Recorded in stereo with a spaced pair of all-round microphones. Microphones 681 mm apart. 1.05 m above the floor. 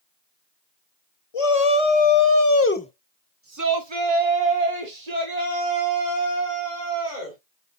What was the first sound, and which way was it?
A shout, 55° left (ahead or behind).